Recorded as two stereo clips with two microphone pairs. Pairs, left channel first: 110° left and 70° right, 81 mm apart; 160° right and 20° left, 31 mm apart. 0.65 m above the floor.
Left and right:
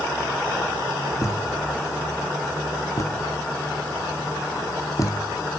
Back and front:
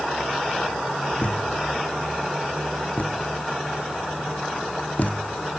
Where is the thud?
160° left.